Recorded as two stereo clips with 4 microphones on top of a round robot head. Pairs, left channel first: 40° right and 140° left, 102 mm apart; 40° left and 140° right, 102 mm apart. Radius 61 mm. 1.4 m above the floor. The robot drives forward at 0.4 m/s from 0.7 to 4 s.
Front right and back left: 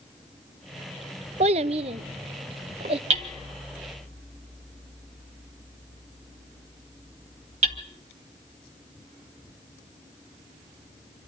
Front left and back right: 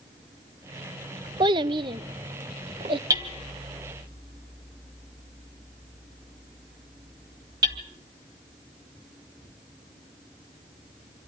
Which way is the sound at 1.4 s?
170° left.